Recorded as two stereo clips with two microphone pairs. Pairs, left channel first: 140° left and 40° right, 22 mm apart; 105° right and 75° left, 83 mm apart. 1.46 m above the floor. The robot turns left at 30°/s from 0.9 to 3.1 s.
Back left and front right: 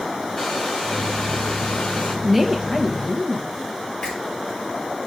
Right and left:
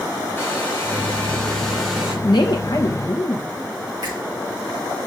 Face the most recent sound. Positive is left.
turn(degrees=100)